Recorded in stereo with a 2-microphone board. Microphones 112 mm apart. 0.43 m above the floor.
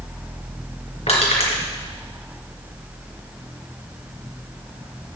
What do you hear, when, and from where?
1.1 s crushing: 75° left (ahead or behind), 3 m